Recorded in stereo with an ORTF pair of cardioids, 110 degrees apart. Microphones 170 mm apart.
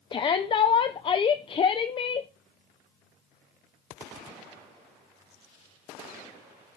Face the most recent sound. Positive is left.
turn(degrees=30)